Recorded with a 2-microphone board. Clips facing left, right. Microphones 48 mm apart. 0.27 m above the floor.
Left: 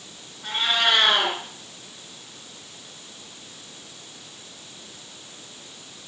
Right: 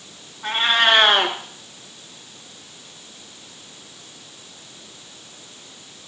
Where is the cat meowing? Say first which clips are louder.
Right 5 dB; 40° right (ahead or behind), 1.9 m.